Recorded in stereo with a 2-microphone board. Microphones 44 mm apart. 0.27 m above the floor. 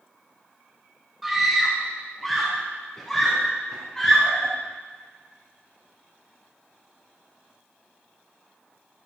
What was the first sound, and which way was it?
A scream, 5° right (ahead or behind).